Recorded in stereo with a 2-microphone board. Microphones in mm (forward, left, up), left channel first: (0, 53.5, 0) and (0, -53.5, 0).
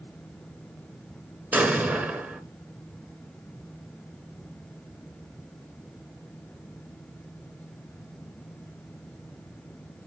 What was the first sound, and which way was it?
An explosion, 15° right (ahead or behind).